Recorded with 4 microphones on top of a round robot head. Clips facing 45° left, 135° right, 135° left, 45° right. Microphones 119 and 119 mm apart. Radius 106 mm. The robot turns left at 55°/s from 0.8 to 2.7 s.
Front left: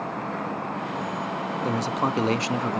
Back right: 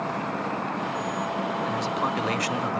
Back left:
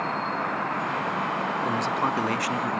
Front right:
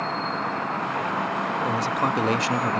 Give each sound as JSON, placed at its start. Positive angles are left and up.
{"t": 1.6, "sound": "a man speaking", "azimuth_deg": 45, "distance_m": 1.2}